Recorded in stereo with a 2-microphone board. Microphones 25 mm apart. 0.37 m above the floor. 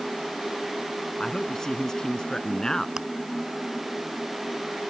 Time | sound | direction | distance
1.2 | a man speaking | 25° left (ahead or behind) | ?
3.0 | chewing | 25° right (ahead or behind) | ?